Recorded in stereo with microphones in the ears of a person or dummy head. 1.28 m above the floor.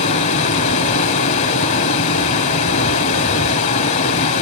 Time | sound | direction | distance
0.0 | running water | 30° left (ahead or behind) | 1.4 m